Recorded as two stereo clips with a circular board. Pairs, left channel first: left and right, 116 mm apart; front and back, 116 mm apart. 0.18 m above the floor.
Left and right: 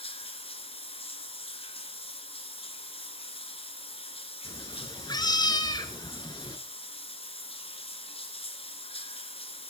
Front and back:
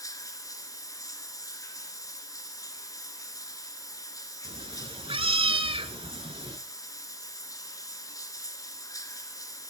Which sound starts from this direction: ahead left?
Running water, at 0.0 s.